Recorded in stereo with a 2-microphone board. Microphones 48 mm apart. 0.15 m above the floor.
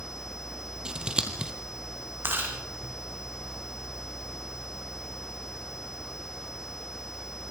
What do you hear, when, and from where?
0.8 s scissors: 20° right (ahead or behind), 3 m
2.2 s chewing: 50° right (ahead or behind), 5.5 m